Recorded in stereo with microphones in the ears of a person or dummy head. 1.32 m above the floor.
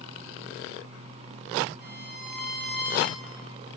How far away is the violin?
About 3 m.